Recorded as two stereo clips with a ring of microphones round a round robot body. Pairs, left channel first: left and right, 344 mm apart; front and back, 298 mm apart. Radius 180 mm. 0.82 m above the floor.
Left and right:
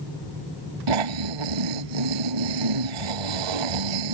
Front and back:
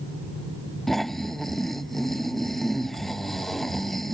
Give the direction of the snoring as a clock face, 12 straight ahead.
3 o'clock.